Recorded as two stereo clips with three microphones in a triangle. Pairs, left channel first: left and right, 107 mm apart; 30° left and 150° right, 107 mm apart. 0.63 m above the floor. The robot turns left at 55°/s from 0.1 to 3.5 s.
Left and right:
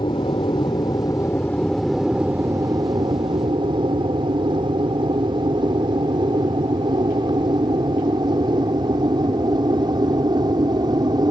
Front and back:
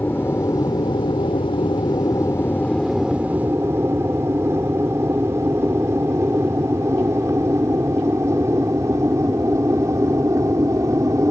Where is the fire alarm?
No fire alarm in this recording.